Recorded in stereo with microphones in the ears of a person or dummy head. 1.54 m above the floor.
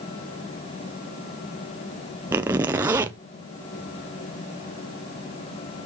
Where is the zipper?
15° right (ahead or behind), 0.6 m.